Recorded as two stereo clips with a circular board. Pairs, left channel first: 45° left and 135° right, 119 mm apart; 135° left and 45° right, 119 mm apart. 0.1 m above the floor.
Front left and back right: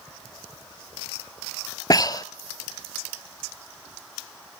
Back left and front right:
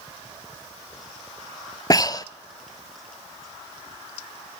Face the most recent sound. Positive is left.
turn(degrees=90)